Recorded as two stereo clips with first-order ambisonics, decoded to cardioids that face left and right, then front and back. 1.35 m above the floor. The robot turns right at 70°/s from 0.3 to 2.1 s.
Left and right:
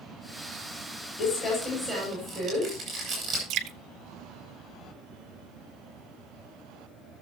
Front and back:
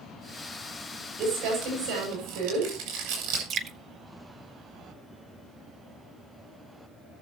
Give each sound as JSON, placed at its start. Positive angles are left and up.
{"t": 1.2, "sound": "crumpling", "azimuth_deg": 135, "distance_m": 7.5}
{"t": 3.5, "sound": "dripping", "azimuth_deg": -130, "distance_m": 1.1}